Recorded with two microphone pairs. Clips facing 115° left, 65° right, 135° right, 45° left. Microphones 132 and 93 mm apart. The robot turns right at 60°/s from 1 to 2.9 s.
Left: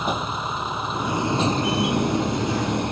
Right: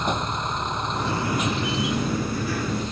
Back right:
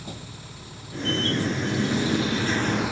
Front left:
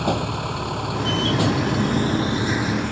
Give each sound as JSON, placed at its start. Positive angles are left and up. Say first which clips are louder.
{"t": 0.0, "sound": "a vehicle", "louder": "even, front left 17 dB", "azimuth_deg": 30}